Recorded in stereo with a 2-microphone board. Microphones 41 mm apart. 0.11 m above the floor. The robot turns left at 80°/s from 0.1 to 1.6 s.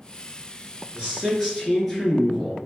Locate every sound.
0.9 s a man speaking: 135° right, 1.7 m; by 2.6 s 170° left, 1.7 m